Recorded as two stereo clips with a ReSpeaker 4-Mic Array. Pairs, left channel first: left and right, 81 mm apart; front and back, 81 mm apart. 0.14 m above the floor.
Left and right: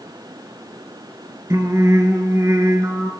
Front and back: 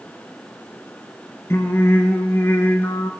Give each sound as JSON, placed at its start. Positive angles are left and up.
{"t": 1.5, "sound": "singing", "azimuth_deg": -50, "distance_m": 0.6}